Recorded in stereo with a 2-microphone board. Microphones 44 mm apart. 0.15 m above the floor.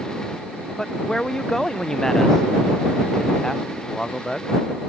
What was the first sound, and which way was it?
A man speaking, 15° left (ahead or behind).